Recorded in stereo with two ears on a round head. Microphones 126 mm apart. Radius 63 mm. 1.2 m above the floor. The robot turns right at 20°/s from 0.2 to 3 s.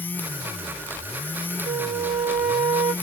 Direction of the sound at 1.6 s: 70° right (ahead or behind).